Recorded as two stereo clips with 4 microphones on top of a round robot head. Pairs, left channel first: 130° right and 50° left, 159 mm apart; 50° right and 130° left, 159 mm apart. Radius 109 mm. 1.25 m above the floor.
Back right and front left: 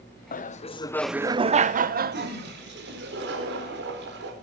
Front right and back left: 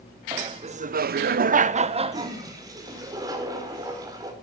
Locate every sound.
0.3 s laughter: 165° right, 1.1 m; by 3.1 s 65° left, 2.5 m
2.1 s a toilet flushing: 60° left, 4.5 m